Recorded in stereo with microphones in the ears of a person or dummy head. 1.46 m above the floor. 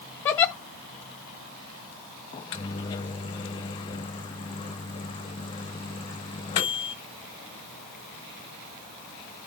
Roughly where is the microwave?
Left.